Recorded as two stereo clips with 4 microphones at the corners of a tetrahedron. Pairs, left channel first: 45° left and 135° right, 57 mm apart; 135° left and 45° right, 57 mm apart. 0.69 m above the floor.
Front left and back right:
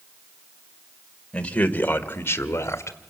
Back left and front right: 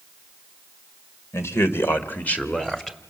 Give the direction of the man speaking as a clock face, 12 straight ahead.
8 o'clock.